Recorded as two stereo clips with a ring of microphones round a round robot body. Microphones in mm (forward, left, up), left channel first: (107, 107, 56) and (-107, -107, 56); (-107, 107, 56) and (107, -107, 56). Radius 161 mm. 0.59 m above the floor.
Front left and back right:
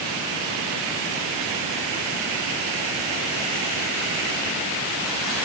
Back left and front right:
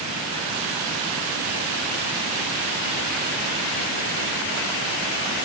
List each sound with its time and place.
Only background noise.